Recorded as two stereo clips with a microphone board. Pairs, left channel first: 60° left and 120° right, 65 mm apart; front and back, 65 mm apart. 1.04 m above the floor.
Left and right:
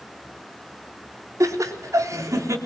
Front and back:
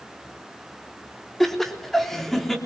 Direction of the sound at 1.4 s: 90° right.